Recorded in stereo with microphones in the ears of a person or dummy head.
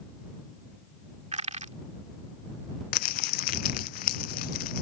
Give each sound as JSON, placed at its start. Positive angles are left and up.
{"t": 1.3, "sound": "crushing", "side_deg": -30}
{"t": 2.9, "sound": "crumpling", "side_deg": 50}